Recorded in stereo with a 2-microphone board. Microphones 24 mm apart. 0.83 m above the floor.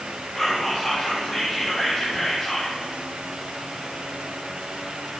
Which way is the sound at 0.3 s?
15° left (ahead or behind).